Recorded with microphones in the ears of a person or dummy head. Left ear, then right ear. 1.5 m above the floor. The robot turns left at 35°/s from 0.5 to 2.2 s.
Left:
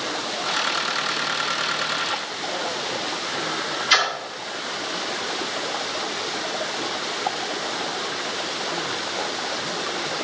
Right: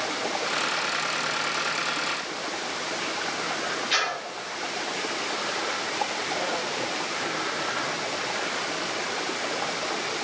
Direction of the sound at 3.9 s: 45° left (ahead or behind).